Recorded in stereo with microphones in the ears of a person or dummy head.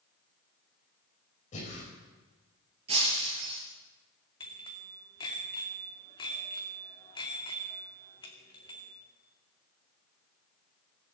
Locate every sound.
1.5 s breathing: 40° left (ahead or behind), 5 m
2.9 s breaking glass: 35° right (ahead or behind), 4.5 m
4.4 s a bicycle bell: 25° left (ahead or behind), 2.5 m